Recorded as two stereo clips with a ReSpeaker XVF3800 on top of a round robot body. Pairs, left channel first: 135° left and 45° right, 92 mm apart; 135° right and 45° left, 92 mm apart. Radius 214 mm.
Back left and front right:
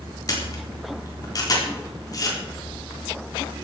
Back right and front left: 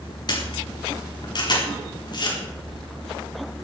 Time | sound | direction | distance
0.3 | a camera shutter | 175° right | 4 m